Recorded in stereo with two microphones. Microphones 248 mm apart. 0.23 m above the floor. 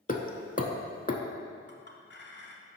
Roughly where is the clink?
Left.